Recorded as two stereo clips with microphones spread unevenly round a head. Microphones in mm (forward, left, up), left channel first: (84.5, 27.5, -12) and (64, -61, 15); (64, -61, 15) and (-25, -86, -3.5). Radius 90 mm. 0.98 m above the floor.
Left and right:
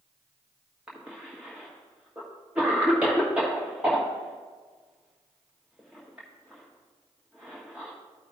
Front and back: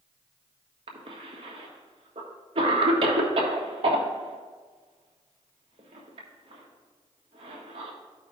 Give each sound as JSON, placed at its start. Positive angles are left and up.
{"t": 0.9, "sound": "a cough", "azimuth_deg": 170, "distance_m": 1.1}